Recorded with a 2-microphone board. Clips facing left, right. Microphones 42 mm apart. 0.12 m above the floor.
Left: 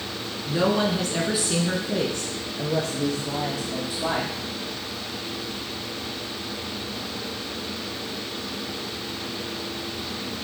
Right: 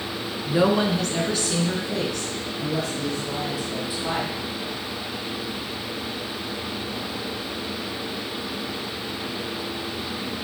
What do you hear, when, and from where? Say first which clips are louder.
0.5 s a woman speaking: right 2 dB; 20° right (ahead or behind), 1.2 m; by 4.3 s 55° left (ahead or behind), 3 m